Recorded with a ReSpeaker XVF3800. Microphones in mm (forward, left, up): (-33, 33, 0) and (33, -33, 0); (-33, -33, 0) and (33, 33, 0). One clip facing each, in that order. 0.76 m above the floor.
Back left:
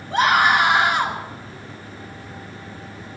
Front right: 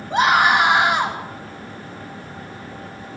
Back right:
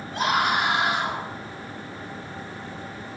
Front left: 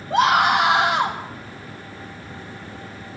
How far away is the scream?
About 4.5 m.